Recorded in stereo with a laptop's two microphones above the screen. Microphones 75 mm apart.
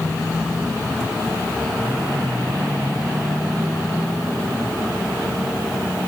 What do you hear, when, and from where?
Only background noise.